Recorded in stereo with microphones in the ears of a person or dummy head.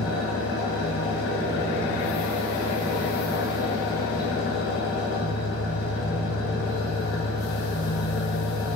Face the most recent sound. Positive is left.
turn(degrees=55)  # may be behind; listen again after turning